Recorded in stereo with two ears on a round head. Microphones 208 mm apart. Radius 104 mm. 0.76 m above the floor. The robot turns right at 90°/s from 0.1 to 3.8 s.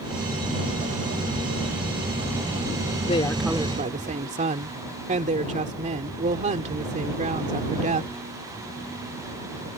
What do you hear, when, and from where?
3.0 s a woman speaking: 145° left; by 8.1 s 145° right